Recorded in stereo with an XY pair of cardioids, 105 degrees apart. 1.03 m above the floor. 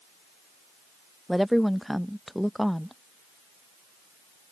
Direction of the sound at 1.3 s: Straight ahead.